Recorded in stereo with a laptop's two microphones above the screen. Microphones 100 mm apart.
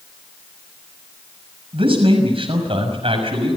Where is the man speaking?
65° right (ahead or behind), 6 m.